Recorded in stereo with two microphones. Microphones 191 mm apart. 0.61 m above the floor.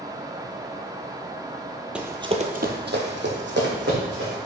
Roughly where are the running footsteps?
Centre.